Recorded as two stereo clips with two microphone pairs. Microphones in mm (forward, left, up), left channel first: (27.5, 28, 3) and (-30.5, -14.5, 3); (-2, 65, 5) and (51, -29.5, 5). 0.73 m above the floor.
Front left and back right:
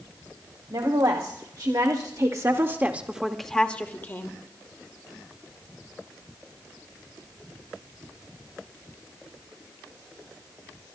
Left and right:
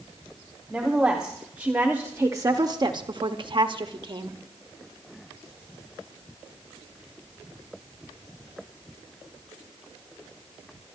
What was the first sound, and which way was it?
A woman speaking, 145° right.